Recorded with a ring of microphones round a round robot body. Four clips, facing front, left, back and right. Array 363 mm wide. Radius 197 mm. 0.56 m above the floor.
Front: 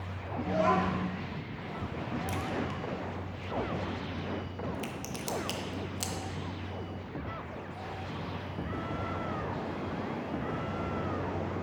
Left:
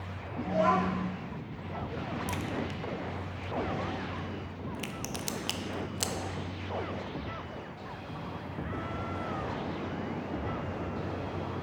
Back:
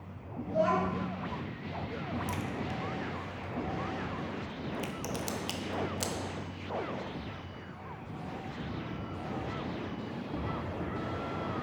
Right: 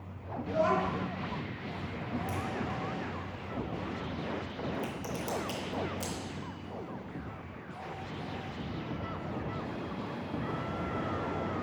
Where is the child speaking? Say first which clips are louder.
Left 2 dB, front 1 dB; 40° left, 2.5 m.